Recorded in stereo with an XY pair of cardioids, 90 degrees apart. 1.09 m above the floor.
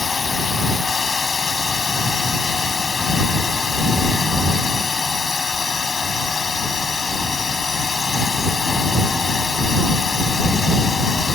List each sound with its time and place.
0.0 s a drone: 35° left